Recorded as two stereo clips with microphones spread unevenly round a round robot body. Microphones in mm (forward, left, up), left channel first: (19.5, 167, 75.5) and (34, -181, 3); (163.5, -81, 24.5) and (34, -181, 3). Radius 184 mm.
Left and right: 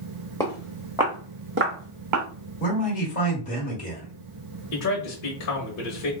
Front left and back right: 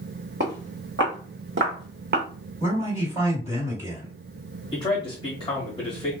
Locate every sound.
0.4 s footsteps: 170° left, 1.1 m; by 2.2 s 130° right, 1.1 m
2.6 s a man speaking: 160° left, 1.4 m
4.7 s a man speaking: 85° left, 1.0 m